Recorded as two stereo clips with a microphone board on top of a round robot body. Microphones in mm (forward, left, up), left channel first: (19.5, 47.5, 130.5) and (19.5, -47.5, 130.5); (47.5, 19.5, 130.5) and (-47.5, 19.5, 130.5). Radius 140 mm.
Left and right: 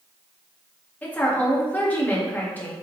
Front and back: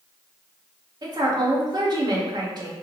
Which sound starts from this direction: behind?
A woman speaking, at 1.0 s.